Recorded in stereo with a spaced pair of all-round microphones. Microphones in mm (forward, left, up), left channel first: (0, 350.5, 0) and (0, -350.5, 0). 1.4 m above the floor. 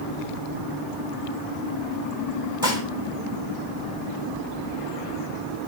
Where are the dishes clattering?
25° left (ahead or behind), 4 m.